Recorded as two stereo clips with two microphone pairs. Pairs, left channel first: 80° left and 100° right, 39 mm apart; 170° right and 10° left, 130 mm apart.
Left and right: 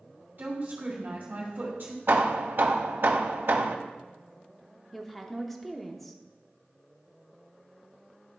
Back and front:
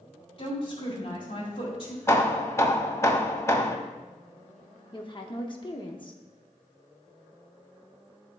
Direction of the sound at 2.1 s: 100° right.